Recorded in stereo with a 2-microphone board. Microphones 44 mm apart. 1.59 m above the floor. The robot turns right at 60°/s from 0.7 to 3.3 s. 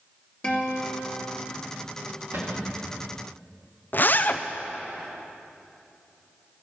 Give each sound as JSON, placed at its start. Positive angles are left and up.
{"t": 0.4, "sound": "a guitar", "azimuth_deg": 30, "distance_m": 2.0}
{"t": 2.3, "sound": "a cupboard door", "azimuth_deg": -130, "distance_m": 2.0}
{"t": 3.9, "sound": "a zipper", "side_deg": 50, "distance_m": 0.6}